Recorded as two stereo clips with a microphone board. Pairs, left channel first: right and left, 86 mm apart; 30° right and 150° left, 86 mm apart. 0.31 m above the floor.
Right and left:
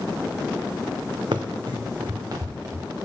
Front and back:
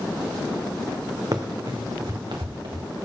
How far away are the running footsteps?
About 1.0 m.